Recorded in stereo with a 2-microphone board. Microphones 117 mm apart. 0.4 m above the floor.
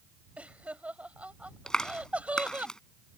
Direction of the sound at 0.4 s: 10° right (ahead or behind).